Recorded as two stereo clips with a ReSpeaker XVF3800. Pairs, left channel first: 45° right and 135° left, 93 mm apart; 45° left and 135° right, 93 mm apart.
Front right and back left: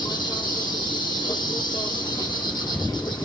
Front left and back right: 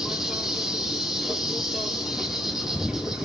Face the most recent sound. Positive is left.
turn(degrees=-50)